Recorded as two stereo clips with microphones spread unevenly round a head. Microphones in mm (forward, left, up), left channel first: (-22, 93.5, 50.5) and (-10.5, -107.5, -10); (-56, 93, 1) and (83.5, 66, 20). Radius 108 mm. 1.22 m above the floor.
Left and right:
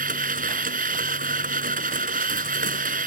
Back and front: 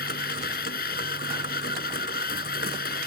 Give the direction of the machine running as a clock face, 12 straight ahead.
5 o'clock.